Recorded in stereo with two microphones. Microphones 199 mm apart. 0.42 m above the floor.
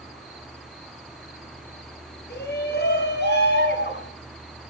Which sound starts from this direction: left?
A shout, at 2.3 s.